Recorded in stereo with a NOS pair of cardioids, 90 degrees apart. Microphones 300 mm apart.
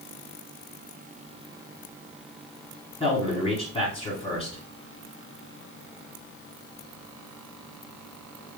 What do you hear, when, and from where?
3.0 s a man speaking: 20° left, 1.9 m